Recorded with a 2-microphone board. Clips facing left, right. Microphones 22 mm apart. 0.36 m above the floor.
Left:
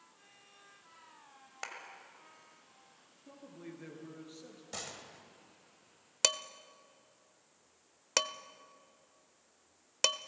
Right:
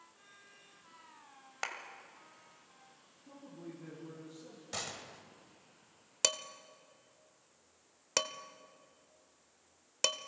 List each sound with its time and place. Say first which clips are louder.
1.6 s a clap: right 4 dB; 15° right (ahead or behind), 1.8 m
3.3 s a man speaking: even; 45° left (ahead or behind), 5.5 m
4.7 s a gunshot: right 3 dB; 15° right (ahead or behind), 1.3 m
6.2 s dishes clattering: left 2 dB; 10° left (ahead or behind), 0.6 m